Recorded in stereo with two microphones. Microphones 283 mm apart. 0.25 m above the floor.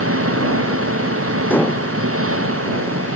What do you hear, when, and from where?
0.0 s an engine running: 55° right (ahead or behind)
1.5 s dishes clattering: 5° left (ahead or behind)